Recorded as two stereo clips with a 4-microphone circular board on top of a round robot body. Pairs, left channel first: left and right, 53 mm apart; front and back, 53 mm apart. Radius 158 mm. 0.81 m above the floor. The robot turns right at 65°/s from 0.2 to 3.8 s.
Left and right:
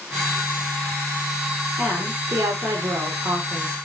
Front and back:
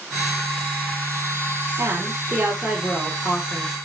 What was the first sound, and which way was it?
A woman speaking, 155° right.